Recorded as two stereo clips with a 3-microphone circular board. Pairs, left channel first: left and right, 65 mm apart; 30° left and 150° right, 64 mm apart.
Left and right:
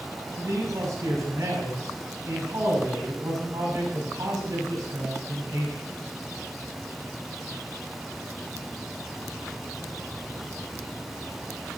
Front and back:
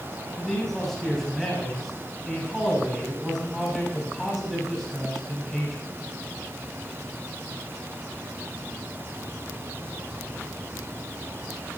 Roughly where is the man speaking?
Ahead right.